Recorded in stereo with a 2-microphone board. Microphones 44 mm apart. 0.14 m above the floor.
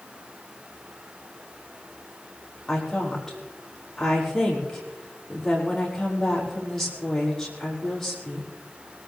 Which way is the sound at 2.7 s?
10° left (ahead or behind).